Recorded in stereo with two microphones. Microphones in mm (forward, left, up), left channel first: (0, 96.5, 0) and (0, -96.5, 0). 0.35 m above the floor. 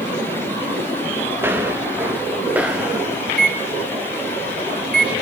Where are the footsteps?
10° right (ahead or behind), 4 m; by 3.2 s 5° right (ahead or behind), 2.5 m.